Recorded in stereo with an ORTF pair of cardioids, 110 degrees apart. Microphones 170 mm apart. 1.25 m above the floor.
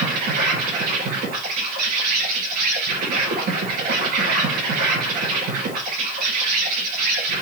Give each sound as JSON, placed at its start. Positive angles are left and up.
{"t": 0.0, "sound": "an insect", "azimuth_deg": -70, "distance_m": 3.0}